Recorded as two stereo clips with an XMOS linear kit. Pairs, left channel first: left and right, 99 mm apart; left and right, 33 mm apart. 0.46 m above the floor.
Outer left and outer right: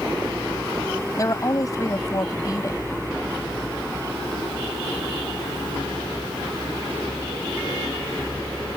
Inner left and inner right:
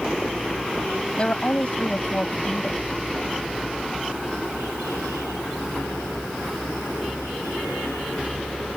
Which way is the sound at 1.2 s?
35° left (ahead or behind).